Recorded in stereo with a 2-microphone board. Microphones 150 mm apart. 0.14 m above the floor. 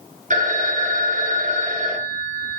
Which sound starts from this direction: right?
A phone ringing, at 0.3 s.